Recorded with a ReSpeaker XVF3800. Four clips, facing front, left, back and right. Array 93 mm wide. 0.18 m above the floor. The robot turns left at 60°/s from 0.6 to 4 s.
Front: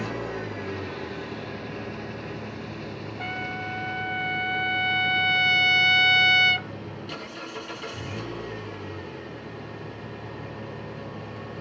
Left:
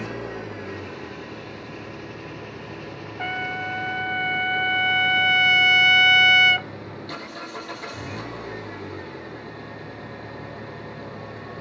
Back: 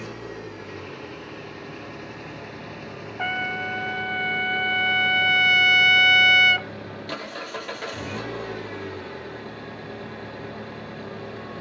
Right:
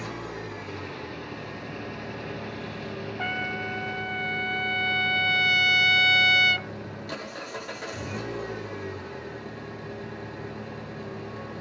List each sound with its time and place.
0.0 s an engine running: 40° left, 5 m; by 11.6 s 165° right, 5 m
3.2 s a trumpet: 170° left, 0.7 m; by 6.7 s 125° left, 0.7 m